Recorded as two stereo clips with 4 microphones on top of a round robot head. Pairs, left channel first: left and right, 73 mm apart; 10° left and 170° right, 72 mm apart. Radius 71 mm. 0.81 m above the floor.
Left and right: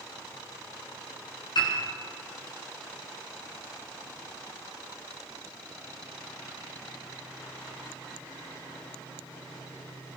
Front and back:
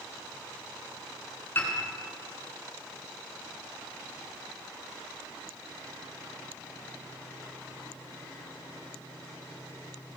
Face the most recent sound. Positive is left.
turn(degrees=70)